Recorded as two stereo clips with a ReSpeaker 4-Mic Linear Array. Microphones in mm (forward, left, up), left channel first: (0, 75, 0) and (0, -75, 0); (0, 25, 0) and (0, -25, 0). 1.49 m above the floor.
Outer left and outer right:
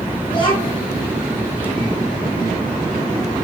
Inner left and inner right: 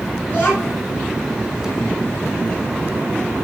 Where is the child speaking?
35° left (ahead or behind), 5 m.